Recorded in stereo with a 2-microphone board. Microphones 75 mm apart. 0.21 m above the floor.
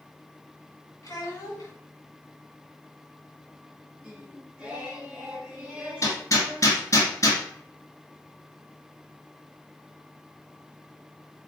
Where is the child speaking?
50° left (ahead or behind), 1.3 m.